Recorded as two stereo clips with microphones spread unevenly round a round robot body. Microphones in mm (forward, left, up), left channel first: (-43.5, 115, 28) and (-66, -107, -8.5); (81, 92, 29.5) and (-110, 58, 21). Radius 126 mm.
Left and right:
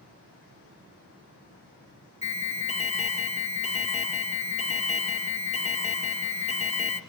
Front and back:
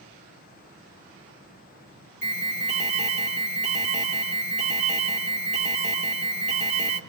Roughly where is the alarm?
Behind left.